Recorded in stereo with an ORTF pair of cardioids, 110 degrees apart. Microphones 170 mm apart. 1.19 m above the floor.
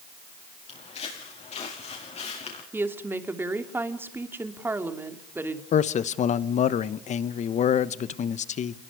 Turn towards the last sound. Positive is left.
turn(degrees=50)